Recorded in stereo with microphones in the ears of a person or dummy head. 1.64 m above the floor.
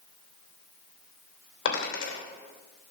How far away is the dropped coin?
About 3 m.